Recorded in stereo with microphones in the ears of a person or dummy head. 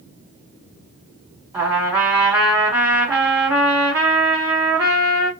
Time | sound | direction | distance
1.5 | a trumpet | 15° right (ahead or behind) | 1.6 m